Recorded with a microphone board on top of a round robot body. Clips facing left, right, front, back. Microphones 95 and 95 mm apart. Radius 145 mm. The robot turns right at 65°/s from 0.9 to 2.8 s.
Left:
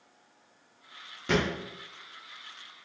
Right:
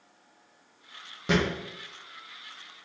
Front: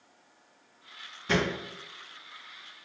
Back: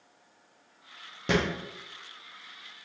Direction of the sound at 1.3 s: 165° right.